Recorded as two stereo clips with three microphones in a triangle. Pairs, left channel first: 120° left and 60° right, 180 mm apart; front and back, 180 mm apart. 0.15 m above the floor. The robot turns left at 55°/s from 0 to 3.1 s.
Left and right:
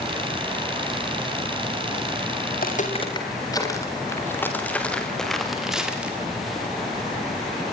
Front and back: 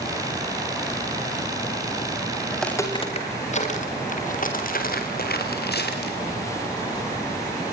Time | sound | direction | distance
2.5 | footsteps | 90° left | 6.5 m